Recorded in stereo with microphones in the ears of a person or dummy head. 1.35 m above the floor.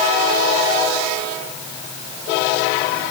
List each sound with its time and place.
Only background noise.